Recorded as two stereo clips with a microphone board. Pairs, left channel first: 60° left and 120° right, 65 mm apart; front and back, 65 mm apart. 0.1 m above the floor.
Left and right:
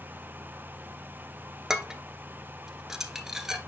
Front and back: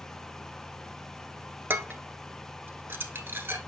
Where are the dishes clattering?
160° left, 1.1 m.